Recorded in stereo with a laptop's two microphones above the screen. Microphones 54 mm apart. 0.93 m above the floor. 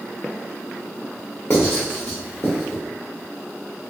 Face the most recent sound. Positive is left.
turn(degrees=50)  # may be behind; listen again after turning